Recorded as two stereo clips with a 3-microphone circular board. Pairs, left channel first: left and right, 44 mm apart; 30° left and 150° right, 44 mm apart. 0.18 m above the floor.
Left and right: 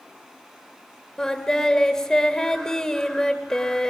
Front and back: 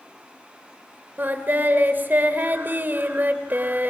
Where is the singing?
170° left, 2.0 m.